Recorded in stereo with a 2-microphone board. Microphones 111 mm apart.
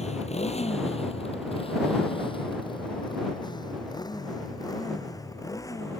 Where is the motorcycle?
85° left; by 6.0 s 30° left (ahead or behind).